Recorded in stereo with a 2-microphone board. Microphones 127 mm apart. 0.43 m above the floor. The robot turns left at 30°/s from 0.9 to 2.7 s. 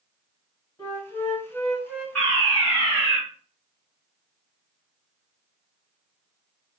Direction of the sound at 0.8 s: 35° left.